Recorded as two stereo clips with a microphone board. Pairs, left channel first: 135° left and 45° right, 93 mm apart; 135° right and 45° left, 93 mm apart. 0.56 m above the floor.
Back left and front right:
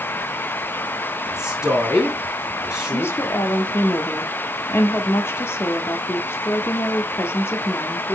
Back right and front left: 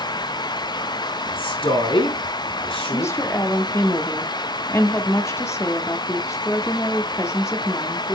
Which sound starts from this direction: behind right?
A man speaking, at 1.3 s.